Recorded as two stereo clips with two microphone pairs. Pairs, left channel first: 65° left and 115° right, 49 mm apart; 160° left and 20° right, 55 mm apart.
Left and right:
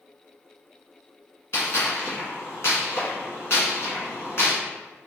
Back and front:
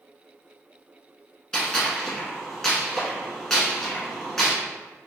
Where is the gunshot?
75° left, 1.0 m.